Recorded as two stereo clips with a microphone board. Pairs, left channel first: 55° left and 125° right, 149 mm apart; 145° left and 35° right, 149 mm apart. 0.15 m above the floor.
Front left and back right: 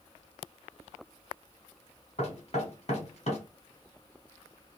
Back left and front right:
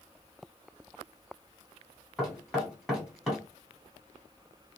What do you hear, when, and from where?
2.2 s knocking: 60° left, 1.5 m